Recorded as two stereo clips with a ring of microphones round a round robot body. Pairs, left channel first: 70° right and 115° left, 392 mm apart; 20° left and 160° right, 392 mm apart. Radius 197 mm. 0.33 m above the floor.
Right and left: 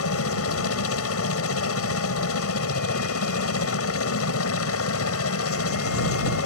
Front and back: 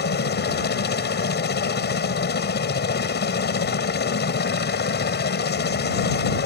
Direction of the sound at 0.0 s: 30° right.